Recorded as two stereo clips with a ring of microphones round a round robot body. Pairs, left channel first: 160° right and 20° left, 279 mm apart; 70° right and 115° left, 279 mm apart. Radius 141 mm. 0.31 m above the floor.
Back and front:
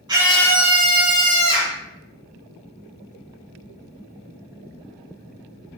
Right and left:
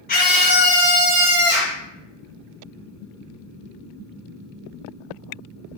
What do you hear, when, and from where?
0.1 s a scream: 40° right, 0.9 m; by 1.8 s 135° right, 1.7 m